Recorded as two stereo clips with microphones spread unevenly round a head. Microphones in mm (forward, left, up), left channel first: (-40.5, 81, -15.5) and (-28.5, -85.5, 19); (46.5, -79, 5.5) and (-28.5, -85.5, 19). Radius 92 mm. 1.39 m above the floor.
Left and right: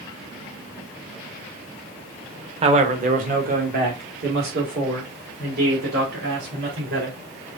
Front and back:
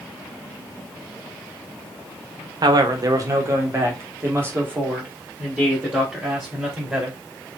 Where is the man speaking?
145° right, 1.0 m; by 7.2 s 105° right, 4 m.